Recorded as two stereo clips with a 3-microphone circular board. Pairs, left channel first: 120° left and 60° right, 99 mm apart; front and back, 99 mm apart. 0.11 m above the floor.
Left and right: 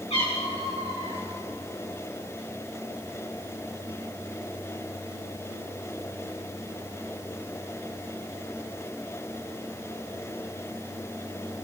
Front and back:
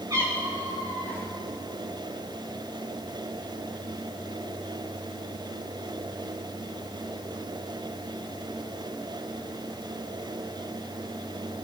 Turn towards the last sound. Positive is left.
turn(degrees=125)